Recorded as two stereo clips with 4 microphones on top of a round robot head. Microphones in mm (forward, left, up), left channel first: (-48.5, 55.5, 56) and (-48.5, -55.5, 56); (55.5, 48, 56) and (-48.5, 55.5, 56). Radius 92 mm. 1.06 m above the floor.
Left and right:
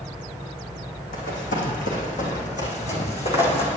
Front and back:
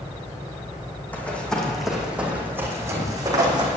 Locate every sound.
1.1 s running footsteps: 70° left, 3.5 m; by 3.7 s 130° left, 3.5 m